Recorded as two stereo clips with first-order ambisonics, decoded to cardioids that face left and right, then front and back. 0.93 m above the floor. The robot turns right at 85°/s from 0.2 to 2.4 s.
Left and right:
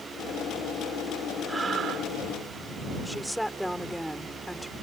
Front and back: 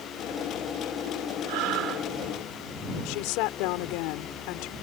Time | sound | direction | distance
1.5 | breathing | 175° right | ?
3.0 | a woman speaking | straight ahead | ?